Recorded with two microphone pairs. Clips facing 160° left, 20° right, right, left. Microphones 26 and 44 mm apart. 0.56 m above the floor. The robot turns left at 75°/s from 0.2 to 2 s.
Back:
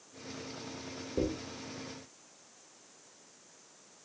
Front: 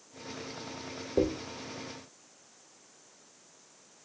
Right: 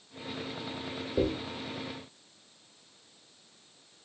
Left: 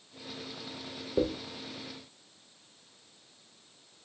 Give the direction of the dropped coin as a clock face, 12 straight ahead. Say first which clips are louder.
Front 5 dB, even; 11 o'clock.